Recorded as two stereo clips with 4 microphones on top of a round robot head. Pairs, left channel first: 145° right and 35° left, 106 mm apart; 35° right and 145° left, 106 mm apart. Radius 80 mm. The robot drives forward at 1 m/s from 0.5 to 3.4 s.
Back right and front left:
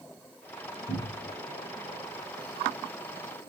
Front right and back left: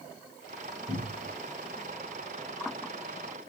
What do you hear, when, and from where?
0.9 s a cupboard door: 160° right, 3 m